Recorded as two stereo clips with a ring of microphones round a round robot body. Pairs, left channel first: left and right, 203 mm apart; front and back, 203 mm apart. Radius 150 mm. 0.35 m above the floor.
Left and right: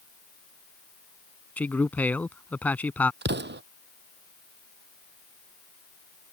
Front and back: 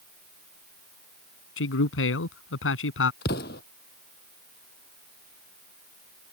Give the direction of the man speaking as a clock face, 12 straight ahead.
12 o'clock.